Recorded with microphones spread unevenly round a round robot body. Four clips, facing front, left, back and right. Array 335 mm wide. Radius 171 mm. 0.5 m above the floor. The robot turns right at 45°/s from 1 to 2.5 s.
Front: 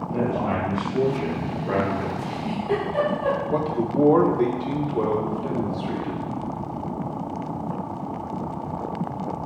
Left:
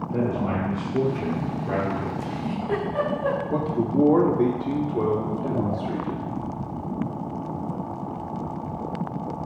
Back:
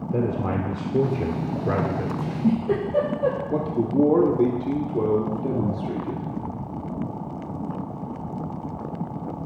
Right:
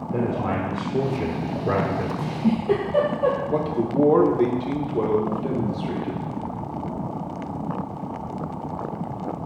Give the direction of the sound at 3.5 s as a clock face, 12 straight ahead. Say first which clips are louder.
Right 1 dB, even; 7 o'clock.